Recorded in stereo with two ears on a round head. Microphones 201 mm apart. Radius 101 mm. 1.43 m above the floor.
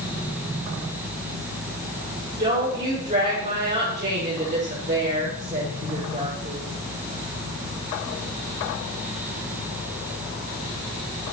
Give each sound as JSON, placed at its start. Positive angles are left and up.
{"t": 2.4, "sound": "a woman speaking", "side_deg": -30, "distance_m": 5.5}